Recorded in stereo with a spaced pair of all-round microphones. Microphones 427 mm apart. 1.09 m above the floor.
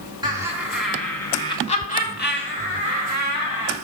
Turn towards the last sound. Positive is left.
turn(degrees=45)  # may be behind; listen again after turning